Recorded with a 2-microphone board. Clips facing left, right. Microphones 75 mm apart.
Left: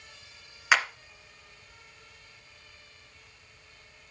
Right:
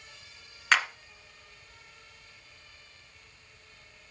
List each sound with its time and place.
0.7 s a clap: 10° left (ahead or behind), 2 m